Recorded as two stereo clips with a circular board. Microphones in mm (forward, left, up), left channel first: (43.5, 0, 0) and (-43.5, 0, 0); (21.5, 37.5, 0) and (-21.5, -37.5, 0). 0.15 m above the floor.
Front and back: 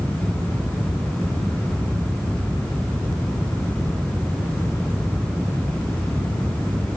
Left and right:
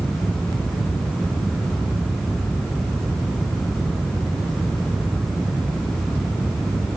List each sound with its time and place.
Only background noise.